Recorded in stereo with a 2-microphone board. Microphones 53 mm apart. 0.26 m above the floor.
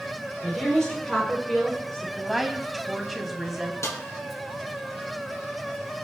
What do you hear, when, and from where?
0.4 s a woman speaking: 10° left (ahead or behind), 7.5 m
2.2 s a woman speaking: 5° right (ahead or behind), 2 m
3.8 s a snare drum: 60° left (ahead or behind), 2.5 m